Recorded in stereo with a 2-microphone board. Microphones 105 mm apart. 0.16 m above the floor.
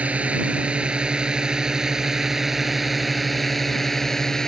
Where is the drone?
10° right (ahead or behind); by 4.5 s 5° left (ahead or behind).